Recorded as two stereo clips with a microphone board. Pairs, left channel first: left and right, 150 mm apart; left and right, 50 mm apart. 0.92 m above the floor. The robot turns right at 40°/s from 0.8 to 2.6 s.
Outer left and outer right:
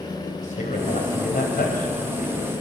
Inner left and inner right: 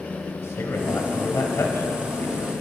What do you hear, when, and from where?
0.4 s a man speaking: 60° left (ahead or behind), 4 m; by 2.5 s 50° left (ahead or behind), 4 m